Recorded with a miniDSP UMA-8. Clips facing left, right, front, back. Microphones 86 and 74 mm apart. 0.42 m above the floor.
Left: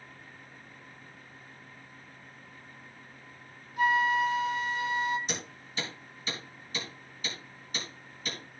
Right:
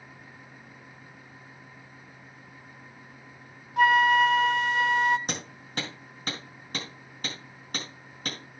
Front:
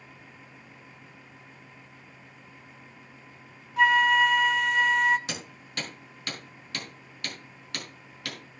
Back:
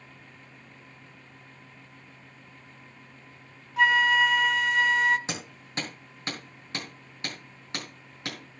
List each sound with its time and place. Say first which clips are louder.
3.8 s a flute: right 6 dB, front 1 dB; 90° right, 0.7 m
5.3 s hammering: right 3 dB, back 2 dB; 120° right, 4.5 m